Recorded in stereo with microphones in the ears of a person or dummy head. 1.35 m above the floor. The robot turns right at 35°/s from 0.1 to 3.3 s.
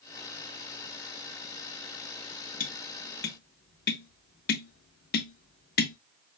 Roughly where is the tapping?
Left.